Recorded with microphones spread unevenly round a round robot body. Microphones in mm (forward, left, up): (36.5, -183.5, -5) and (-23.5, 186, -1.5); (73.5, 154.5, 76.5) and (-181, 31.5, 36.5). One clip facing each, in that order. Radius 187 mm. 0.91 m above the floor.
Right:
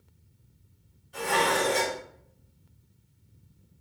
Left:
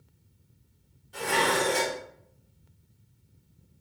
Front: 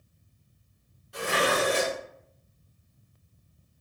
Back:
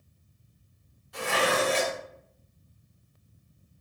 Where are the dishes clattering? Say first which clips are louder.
Even, even; 85° left, 2.0 m.